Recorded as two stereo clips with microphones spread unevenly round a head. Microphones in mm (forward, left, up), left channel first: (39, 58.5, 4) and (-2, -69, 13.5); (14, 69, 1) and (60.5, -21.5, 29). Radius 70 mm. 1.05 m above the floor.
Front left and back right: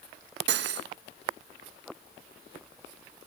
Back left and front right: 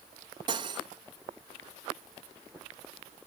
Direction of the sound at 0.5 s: 120° right.